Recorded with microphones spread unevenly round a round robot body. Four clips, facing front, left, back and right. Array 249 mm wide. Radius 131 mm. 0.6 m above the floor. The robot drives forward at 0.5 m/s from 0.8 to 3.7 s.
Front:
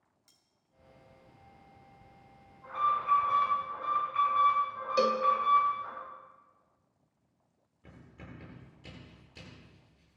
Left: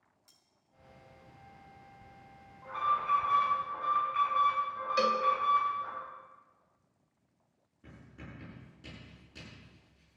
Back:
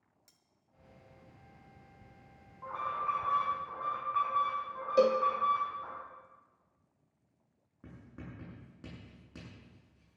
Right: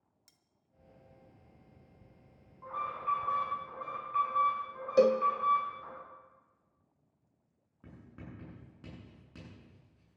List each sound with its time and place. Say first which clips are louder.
0.3 s cutlery clinking: left 3 dB, front 1 dB; 105° right, 0.7 m
2.6 s an alarm: left 5 dB, front 5 dB; 160° right, 9 m
5.0 s a cowbell: right 5 dB, back 2 dB; 120° right, 0.8 m
7.8 s writing: even, back 2 dB; 155° right, 8 m